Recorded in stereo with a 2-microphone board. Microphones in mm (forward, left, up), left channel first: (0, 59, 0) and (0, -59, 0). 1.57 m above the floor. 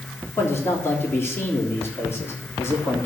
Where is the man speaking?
20° left (ahead or behind), 3.5 m.